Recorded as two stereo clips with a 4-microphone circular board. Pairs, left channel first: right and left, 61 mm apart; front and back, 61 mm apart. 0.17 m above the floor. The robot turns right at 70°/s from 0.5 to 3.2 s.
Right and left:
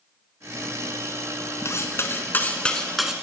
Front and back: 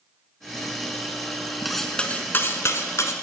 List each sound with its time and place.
1.6 s cutlery clinking: 95° right, 1.2 m; by 3.1 s 10° left, 1.2 m